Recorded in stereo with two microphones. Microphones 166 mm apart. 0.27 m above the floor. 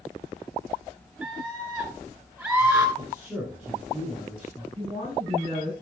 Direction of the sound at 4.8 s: 40° right (ahead or behind).